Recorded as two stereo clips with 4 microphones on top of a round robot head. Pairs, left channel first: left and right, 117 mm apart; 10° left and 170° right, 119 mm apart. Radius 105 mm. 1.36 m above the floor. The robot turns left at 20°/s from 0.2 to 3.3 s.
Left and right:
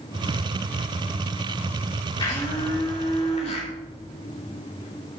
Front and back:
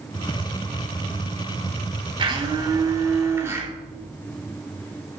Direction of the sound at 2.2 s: 145° left.